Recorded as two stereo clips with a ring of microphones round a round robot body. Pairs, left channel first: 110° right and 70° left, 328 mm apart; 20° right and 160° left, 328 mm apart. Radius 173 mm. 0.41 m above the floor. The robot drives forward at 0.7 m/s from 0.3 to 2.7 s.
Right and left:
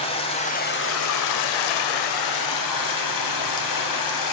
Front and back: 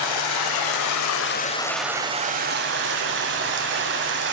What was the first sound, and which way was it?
Running water, 40° right.